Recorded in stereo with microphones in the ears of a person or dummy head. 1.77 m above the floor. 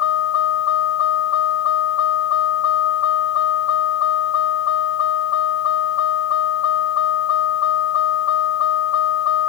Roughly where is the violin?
No violin in this recording.